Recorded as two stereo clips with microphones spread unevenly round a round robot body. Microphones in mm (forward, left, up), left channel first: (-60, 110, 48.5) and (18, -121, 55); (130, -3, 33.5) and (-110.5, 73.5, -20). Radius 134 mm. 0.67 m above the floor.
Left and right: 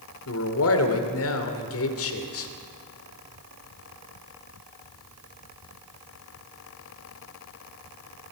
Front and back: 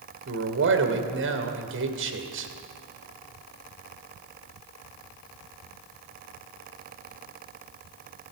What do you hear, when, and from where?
0.3 s a man speaking: 130° left, 2.5 m